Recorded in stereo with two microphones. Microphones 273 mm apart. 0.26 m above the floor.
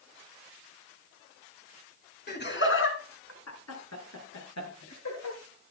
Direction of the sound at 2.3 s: 35° left (ahead or behind).